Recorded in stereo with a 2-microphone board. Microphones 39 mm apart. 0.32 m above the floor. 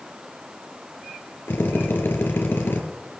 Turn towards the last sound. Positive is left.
turn(degrees=65)  # may be behind; listen again after turning